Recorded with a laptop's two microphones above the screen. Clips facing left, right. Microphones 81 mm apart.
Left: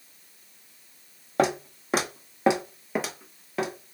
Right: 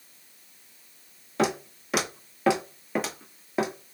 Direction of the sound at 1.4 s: 50° left (ahead or behind).